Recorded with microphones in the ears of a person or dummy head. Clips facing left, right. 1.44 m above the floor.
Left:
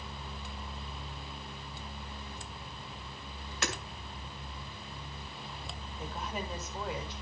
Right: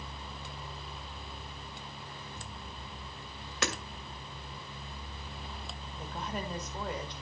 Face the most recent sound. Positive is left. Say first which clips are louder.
# right 1 dB
turn(degrees=-5)  # may be behind; listen again after turning